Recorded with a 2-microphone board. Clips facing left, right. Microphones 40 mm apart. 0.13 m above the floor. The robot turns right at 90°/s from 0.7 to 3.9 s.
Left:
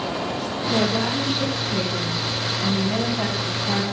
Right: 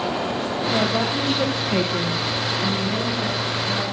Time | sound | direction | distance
0.7 | a woman speaking | 155° left | 3 m